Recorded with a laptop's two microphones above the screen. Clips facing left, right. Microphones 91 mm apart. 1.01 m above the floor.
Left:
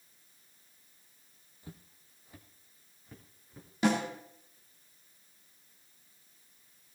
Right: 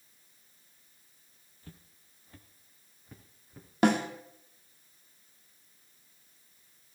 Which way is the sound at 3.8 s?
60° right (ahead or behind).